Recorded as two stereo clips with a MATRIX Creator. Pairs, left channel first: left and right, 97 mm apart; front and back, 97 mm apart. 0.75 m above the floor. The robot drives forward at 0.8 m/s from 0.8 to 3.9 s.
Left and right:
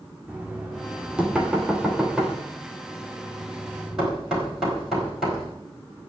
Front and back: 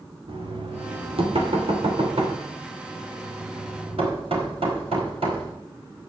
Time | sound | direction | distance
0.3 | knocking | 170° right | 2.0 m